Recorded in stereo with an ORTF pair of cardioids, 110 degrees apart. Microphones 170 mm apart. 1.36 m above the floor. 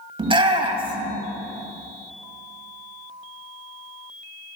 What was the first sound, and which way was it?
A shout, 30° right.